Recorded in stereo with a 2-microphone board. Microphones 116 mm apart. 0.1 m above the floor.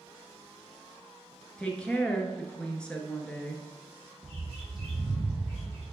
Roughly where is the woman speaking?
Centre.